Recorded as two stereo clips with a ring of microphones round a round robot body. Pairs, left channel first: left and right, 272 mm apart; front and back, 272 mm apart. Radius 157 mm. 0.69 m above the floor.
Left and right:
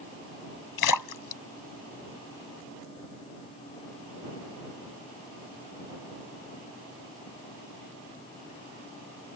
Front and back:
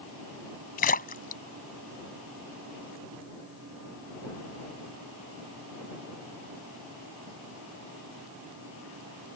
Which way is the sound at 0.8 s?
65° left.